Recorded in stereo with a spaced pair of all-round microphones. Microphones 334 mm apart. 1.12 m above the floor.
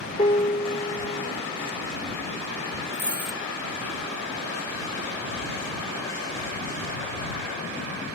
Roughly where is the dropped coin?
Left.